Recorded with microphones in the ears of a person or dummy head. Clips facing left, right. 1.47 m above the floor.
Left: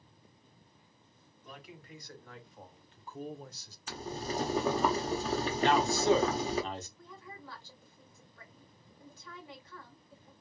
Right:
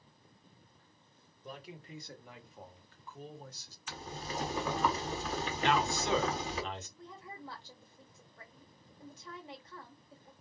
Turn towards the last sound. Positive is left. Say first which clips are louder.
# right 2 dB
turn(degrees=-20)  # may be behind; listen again after turning